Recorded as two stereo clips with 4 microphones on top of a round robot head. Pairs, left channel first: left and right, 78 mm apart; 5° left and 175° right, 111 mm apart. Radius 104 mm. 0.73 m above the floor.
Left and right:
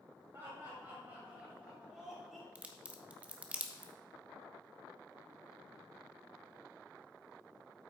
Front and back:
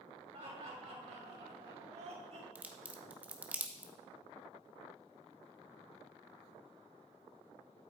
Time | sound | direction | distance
0.3 | laughter | 150° right | 3 m
2.5 | a crack | 130° right | 1.1 m